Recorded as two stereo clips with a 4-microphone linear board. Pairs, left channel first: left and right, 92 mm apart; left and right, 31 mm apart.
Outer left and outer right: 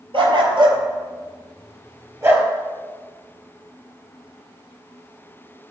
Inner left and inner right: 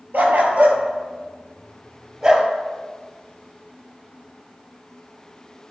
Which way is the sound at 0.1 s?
70° right (ahead or behind).